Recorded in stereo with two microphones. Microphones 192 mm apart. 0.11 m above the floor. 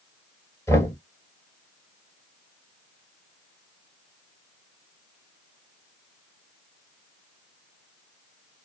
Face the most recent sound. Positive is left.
turn(degrees=15)  # may be behind; listen again after turning